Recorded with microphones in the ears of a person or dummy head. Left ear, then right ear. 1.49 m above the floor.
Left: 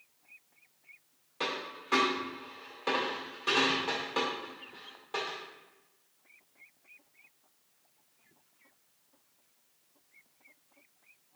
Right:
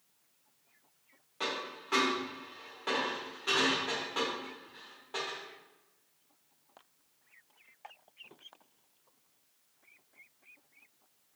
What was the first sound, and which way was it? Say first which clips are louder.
A dropped coin: left 1 dB; 15° left (ahead or behind).